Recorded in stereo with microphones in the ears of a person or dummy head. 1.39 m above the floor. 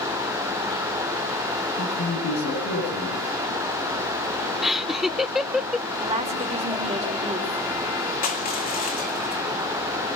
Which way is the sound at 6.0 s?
25° right (ahead or behind).